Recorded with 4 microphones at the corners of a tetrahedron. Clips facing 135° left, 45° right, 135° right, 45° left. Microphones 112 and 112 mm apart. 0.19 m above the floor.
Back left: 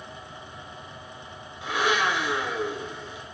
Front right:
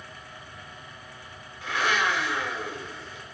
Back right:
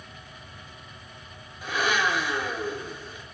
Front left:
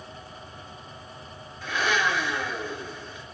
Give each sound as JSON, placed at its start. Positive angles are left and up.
{"t": 1.6, "sound": "a blender", "azimuth_deg": 165, "distance_m": 1.0}